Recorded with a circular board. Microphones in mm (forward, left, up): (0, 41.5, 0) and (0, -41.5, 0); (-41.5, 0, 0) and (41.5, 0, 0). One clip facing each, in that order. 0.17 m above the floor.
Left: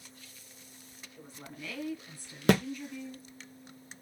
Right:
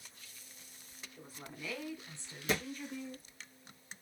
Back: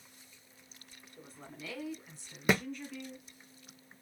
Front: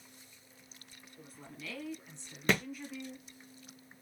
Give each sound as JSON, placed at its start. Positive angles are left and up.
{"t": 1.2, "sound": "a woman speaking", "azimuth_deg": -175, "distance_m": 1.7}
{"t": 2.5, "sound": "a thud", "azimuth_deg": 100, "distance_m": 1.1}